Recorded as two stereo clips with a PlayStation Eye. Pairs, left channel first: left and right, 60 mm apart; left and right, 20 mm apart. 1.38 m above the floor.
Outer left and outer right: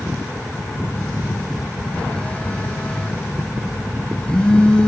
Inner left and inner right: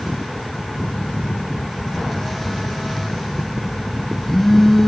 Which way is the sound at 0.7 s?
15° left (ahead or behind).